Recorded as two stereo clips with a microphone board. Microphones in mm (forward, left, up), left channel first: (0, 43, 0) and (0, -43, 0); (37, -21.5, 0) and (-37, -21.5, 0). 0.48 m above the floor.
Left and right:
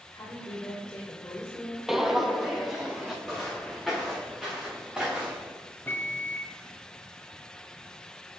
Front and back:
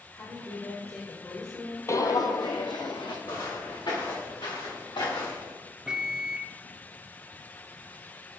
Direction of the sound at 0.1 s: 50° left.